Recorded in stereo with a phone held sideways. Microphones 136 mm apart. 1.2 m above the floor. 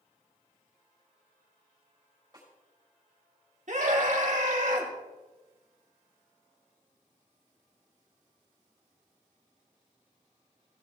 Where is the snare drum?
30° right (ahead or behind), 5.5 m.